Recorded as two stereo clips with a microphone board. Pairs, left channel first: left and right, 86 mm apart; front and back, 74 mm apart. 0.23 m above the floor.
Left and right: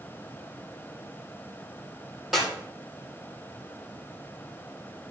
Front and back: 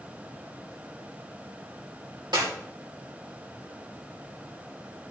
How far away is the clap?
About 8 m.